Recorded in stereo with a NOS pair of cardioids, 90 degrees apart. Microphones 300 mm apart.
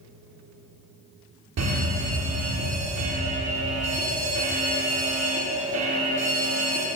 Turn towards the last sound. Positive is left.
turn(degrees=-60)